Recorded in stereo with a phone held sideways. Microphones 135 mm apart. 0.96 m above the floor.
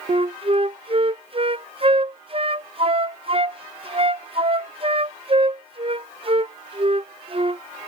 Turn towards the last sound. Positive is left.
turn(degrees=-40)  # may be behind; listen again after turning